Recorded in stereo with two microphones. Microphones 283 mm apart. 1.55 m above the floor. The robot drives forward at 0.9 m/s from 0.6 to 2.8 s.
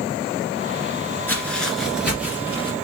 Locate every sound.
1.3 s footsteps: 5° left (ahead or behind), 1.6 m; by 2.7 s 5° right (ahead or behind), 3 m